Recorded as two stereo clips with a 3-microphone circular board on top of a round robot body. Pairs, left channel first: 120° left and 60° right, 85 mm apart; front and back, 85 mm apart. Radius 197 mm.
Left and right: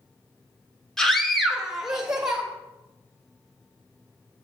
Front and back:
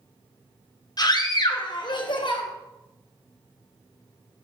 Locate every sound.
1.0 s a scream: 35° left, 1.5 m; by 2.4 s 20° left, 2 m